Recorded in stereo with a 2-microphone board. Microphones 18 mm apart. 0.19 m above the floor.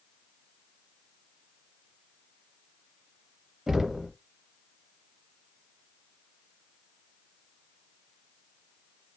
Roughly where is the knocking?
Right.